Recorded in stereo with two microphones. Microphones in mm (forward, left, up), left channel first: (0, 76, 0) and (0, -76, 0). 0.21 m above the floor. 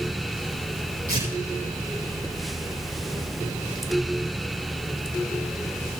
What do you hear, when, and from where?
1.1 s tearing paper: 65° right (ahead or behind), 9 m